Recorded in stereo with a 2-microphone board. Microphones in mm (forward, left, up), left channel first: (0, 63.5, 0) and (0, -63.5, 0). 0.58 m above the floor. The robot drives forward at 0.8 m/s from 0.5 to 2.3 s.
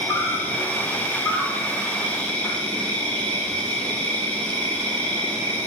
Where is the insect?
15° left (ahead or behind), 3 m; by 5.7 s 10° left (ahead or behind), 4.5 m.